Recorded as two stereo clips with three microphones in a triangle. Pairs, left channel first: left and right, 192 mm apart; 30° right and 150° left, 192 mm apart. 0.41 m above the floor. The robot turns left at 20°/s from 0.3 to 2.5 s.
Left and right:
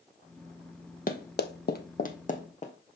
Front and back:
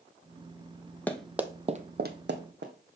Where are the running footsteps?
50° left, 1.0 m; by 2.7 s 140° left, 1.6 m.